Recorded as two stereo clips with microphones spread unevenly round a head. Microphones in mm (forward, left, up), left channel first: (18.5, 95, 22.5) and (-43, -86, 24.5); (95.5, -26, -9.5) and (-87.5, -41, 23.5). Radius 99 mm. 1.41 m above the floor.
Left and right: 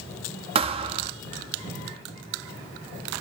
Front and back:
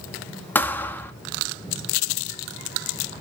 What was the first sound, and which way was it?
A thud, 85° right.